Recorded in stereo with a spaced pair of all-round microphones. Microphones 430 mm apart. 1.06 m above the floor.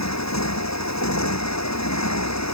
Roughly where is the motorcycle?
Left.